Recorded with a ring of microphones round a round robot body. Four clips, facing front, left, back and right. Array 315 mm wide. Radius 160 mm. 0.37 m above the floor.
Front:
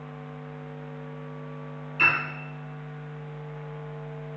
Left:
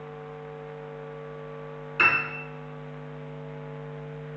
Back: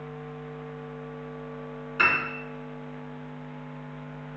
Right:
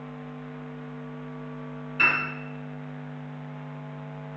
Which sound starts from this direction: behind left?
A piano, at 2.0 s.